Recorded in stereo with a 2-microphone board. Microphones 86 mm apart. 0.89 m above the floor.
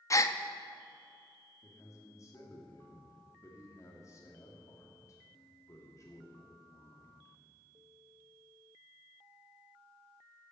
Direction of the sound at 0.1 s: 40° left (ahead or behind).